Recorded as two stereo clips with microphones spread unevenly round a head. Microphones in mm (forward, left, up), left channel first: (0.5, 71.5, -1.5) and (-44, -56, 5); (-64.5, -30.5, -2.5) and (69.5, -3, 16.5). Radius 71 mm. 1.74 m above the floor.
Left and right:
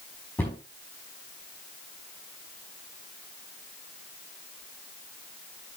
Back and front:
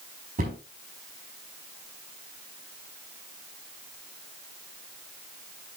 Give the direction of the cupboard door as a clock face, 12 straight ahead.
12 o'clock.